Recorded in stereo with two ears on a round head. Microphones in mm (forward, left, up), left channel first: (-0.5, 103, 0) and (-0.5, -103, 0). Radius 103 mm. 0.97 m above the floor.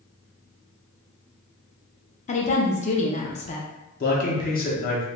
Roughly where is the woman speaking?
Left.